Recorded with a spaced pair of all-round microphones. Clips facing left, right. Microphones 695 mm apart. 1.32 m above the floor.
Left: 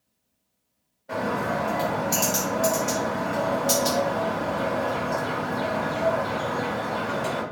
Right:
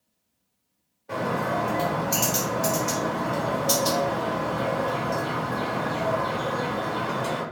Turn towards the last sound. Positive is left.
turn(degrees=15)  # may be behind; listen again after turning